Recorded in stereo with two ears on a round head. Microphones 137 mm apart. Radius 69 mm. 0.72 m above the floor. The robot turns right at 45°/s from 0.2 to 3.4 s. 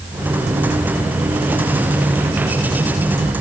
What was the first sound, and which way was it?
Only background noise.